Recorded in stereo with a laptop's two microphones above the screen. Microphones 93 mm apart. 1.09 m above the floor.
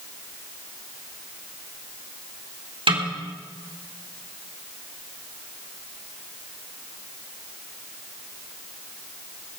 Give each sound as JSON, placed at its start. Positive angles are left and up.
{"t": 2.9, "sound": "a snare drum", "side_deg": -85, "distance_m": 3.0}